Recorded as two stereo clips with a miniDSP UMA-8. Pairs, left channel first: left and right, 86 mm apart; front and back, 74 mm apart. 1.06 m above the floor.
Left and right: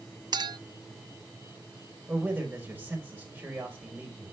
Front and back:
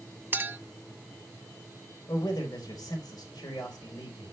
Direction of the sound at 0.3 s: 115° right.